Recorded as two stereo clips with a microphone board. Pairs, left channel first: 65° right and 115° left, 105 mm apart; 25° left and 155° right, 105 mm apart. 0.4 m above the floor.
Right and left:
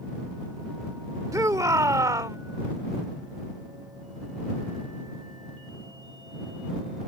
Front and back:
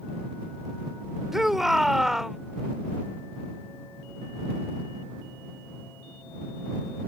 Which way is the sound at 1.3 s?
120° left.